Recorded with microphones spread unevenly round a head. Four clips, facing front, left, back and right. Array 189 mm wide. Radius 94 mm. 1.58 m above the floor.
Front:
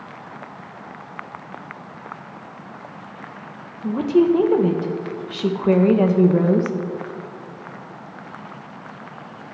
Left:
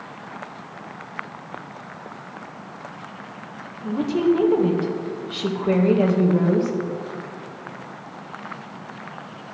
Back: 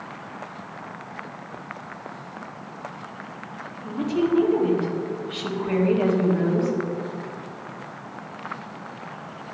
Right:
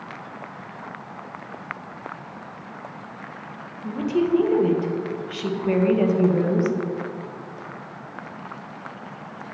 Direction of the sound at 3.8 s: 10° left.